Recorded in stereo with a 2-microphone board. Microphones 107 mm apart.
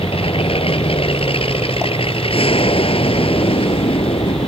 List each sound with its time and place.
0.0 s an aircraft: 60° left (ahead or behind)